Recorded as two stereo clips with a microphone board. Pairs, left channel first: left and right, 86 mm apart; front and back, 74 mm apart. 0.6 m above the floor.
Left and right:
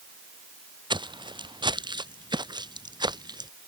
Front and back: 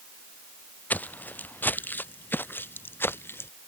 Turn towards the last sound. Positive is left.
turn(degrees=-55)